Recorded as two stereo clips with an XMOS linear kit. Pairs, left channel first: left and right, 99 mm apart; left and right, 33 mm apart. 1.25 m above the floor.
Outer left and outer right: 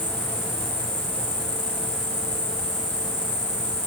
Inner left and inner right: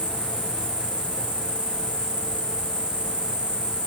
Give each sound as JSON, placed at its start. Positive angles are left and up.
{"t": 0.0, "sound": "an insect", "side_deg": -45, "distance_m": 1.0}